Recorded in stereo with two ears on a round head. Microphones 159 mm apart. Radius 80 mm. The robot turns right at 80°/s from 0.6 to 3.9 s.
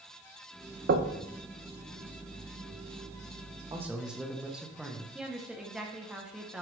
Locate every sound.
0.9 s knocking: 55° right (ahead or behind), 0.8 m; by 1.2 s 35° right (ahead or behind), 0.8 m
3.7 s a man speaking: 20° right (ahead or behind), 1.0 m; by 5.0 s 5° right (ahead or behind), 1.0 m
5.2 s a woman speaking: 5° right (ahead or behind), 0.8 m